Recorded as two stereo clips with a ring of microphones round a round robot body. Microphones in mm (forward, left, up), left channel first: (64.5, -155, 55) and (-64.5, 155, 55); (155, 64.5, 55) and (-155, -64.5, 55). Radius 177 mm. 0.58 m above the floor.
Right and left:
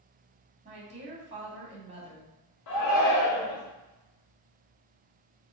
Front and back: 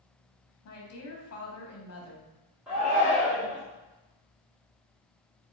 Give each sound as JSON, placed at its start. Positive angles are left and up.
{"t": 0.7, "sound": "a woman speaking", "azimuth_deg": 50, "distance_m": 1.3}
{"t": 2.7, "sound": "a shout", "azimuth_deg": -70, "distance_m": 1.2}